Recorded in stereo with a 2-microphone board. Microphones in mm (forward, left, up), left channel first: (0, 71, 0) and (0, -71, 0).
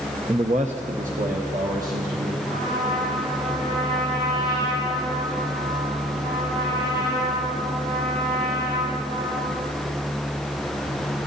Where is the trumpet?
35° right (ahead or behind), 6 m.